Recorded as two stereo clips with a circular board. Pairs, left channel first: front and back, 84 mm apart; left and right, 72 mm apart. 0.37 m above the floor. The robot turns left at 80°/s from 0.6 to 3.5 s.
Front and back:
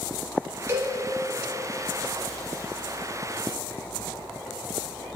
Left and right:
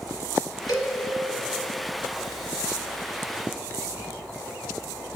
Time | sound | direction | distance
0.7 | a cowbell | 120° left | 1.3 m